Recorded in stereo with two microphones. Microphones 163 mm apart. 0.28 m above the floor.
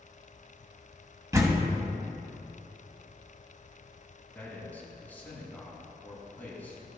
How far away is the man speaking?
About 3 m.